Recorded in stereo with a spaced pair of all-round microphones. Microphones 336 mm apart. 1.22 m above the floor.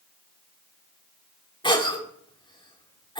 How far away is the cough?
About 3 m.